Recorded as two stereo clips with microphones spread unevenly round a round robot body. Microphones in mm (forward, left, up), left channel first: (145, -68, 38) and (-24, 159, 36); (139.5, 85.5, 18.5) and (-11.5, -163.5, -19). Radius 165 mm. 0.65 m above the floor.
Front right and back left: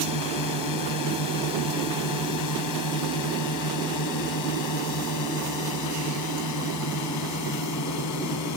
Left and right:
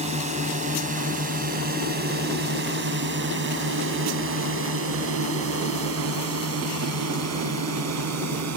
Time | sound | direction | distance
0.0 | a drone | 55° right | ?